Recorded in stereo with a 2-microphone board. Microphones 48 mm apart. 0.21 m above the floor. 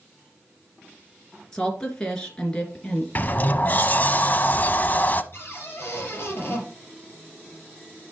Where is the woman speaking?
15° left (ahead or behind), 2.5 m.